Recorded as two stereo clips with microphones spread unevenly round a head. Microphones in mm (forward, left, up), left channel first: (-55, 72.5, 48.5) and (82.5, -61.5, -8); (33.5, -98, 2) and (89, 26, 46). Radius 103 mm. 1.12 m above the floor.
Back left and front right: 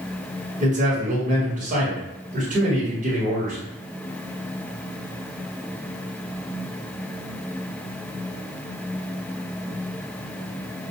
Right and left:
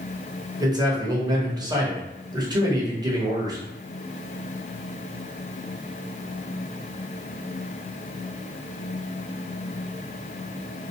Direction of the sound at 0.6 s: Straight ahead.